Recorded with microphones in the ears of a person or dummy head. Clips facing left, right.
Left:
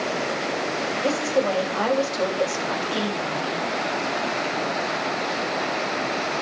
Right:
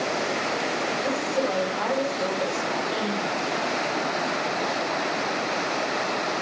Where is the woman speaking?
60° left (ahead or behind), 6.5 m; by 3.6 s 75° left (ahead or behind), 7 m.